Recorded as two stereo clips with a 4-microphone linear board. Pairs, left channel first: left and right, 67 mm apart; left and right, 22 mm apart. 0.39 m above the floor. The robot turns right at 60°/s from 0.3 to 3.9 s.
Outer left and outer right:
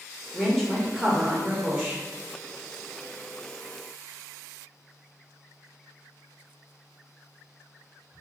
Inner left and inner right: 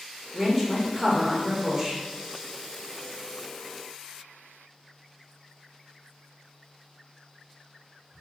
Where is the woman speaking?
10° left (ahead or behind), 0.8 m; by 2.0 s 20° right (ahead or behind), 0.8 m.